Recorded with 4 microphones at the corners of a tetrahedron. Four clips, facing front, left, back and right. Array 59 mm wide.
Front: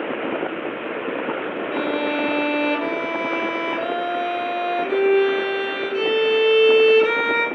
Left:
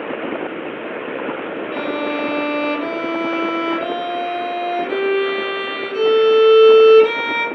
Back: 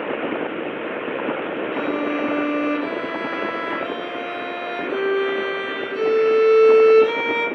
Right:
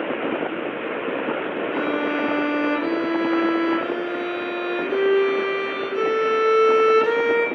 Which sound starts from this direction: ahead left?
A violin, at 1.7 s.